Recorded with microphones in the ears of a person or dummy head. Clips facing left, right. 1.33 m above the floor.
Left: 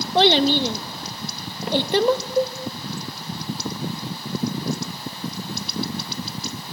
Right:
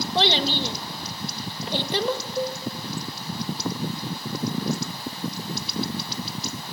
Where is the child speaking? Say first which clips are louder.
Left 8 dB; 45° left (ahead or behind), 1.0 m.